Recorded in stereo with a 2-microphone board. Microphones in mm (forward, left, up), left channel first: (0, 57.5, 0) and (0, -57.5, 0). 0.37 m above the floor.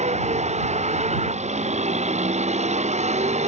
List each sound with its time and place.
0.0 s a vehicle: 85° right